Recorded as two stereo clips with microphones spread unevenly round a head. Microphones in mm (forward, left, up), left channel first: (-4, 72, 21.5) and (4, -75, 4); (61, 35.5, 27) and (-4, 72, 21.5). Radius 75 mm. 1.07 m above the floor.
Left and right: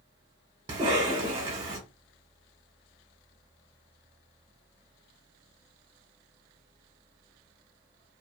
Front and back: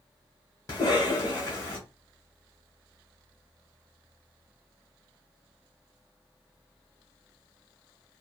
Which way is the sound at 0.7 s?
65° right.